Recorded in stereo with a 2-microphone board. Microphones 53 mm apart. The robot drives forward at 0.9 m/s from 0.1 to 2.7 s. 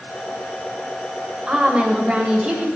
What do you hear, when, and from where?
1.5 s a woman speaking: 20° right (ahead or behind), 1.5 m; by 2.7 s 15° right (ahead or behind), 1.9 m